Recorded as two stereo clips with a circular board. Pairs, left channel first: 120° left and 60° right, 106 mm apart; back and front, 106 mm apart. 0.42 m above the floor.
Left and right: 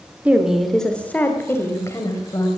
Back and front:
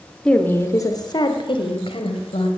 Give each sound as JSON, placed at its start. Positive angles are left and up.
{"t": 0.2, "sound": "a woman speaking", "azimuth_deg": -110, "distance_m": 1.2}